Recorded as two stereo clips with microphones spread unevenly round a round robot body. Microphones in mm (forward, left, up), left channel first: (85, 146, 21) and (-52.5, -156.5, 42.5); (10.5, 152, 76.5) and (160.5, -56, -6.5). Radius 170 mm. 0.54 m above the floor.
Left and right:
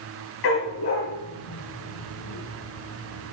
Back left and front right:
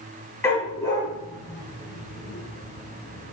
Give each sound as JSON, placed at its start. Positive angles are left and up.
{"t": 0.4, "sound": "a dog barking", "azimuth_deg": 45, "distance_m": 5.0}